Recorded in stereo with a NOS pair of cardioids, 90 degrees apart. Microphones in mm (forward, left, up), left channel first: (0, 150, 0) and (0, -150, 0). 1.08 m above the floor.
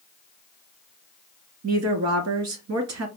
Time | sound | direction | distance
1.6 | a woman speaking | 60° right | 2 m